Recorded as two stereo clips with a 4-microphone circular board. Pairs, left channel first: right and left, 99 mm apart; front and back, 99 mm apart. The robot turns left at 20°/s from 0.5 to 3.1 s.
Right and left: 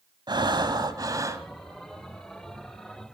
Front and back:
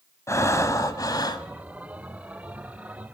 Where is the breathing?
55° left, 1.1 m; by 1.5 s 35° left, 1.1 m.